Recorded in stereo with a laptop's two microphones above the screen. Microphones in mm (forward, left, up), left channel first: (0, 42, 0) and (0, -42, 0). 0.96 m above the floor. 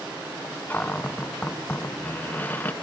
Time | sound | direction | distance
0.7 | a cupboard door | 20° left (ahead or behind) | 0.8 m